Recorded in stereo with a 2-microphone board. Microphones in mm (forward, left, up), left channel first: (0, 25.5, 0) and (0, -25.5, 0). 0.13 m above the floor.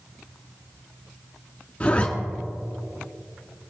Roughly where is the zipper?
Left.